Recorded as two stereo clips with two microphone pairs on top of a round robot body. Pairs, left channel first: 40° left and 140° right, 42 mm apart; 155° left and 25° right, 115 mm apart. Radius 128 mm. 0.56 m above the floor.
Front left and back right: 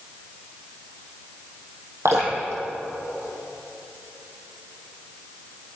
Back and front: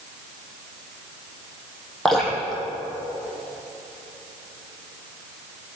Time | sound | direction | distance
2.0 | dripping | 120° right | 4 m